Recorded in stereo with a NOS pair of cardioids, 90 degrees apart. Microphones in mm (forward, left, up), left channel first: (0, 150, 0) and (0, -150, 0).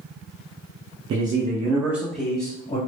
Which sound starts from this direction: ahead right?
A man speaking, at 1.1 s.